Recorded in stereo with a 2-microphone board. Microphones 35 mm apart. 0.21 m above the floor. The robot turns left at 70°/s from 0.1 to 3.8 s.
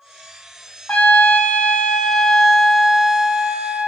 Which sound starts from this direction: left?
A trumpet, at 0.9 s.